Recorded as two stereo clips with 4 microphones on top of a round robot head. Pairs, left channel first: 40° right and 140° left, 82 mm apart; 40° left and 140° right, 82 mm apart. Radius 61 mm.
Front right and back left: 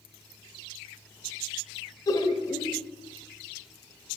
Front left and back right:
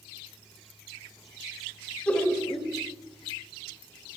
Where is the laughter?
30° right, 0.6 m.